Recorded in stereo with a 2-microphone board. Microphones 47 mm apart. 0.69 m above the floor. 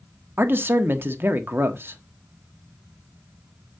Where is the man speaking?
50° right (ahead or behind), 1.2 m.